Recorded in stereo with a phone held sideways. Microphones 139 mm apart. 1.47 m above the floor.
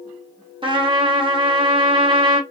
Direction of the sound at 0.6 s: 35° right (ahead or behind).